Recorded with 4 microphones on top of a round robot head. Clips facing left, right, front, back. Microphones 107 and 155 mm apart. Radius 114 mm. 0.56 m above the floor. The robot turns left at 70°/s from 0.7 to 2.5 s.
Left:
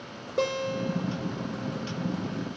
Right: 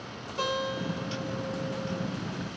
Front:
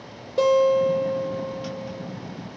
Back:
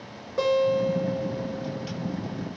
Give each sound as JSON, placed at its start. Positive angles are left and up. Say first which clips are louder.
{"t": 0.4, "sound": "a guitar", "louder": "left 3 dB, front 4 dB", "azimuth_deg": 60, "distance_m": 1.5}